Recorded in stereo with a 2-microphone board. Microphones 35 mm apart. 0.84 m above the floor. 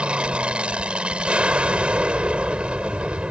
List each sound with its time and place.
0.0 s an aircraft: 30° right (ahead or behind)